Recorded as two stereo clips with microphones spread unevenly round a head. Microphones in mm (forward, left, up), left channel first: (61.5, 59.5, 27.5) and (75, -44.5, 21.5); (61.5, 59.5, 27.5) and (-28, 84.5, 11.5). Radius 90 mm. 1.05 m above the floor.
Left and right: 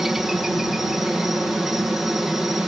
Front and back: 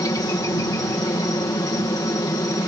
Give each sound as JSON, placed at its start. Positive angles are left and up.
{"t": 0.0, "sound": "a helicopter", "azimuth_deg": 0}